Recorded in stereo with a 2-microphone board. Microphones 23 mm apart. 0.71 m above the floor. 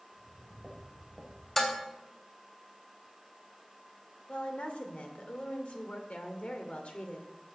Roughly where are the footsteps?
Centre.